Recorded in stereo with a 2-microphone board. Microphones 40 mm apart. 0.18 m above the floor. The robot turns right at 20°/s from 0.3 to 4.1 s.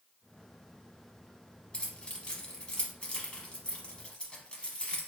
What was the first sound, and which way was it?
Keys jangling, 25° left (ahead or behind).